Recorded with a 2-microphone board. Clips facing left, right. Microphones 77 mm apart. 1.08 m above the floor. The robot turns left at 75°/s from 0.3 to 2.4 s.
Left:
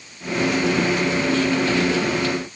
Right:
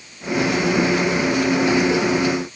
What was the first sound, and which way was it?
Only background noise.